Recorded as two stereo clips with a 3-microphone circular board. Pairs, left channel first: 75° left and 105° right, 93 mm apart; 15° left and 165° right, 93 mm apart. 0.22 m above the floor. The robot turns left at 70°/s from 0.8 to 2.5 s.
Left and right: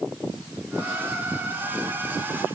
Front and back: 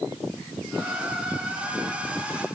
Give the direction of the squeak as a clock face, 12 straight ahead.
No squeak in this recording.